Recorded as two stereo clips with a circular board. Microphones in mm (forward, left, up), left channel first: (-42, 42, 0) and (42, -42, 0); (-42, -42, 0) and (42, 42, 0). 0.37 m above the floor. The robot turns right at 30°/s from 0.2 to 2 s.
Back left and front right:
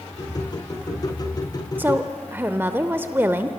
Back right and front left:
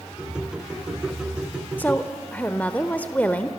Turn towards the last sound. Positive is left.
turn(degrees=-80)